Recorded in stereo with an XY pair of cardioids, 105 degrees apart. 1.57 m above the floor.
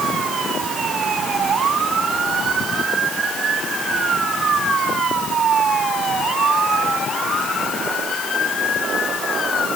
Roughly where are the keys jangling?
I don't hear keys jangling.